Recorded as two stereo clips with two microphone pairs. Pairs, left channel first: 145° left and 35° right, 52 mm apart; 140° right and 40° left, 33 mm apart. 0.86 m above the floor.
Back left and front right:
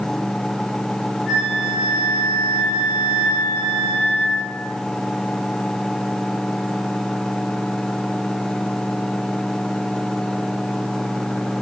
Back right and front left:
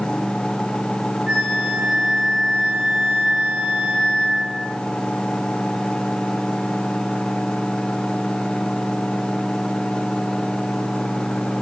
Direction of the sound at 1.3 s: 45° left.